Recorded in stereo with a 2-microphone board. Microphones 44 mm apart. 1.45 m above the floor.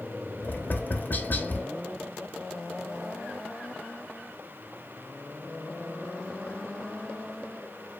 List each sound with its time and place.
0.4 s tapping: 45° left (ahead or behind), 0.9 m